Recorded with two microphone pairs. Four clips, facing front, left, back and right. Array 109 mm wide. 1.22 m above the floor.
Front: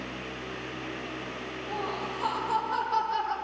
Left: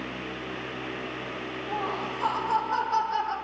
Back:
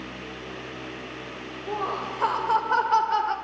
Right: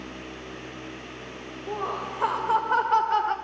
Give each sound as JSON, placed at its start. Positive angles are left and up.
{"t": 1.7, "sound": "laughter", "azimuth_deg": -145, "distance_m": 5.5}